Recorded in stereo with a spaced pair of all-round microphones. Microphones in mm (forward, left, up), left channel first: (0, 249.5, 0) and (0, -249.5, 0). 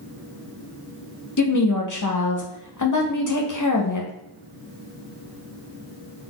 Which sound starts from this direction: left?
A woman speaking, at 1.4 s.